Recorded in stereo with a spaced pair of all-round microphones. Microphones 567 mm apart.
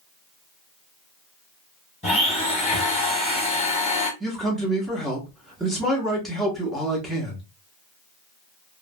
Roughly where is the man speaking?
Centre.